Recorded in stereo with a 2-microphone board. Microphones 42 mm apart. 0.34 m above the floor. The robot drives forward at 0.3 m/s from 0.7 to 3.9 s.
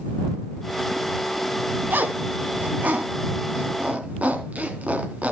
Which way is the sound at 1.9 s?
50° right (ahead or behind).